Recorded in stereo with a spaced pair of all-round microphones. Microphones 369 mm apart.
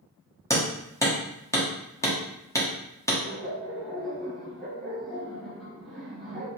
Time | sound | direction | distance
0.5 | hammering | 10° left (ahead or behind) | 1.0 m
3.2 | laughter | centre (ahead or behind) | 1.5 m